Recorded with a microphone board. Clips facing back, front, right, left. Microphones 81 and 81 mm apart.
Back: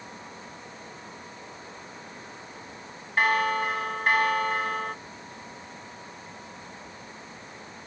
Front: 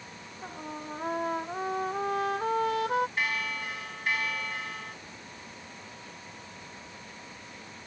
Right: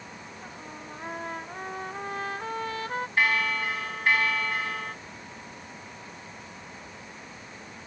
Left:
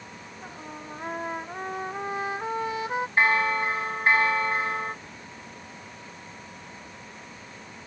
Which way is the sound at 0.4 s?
15° left.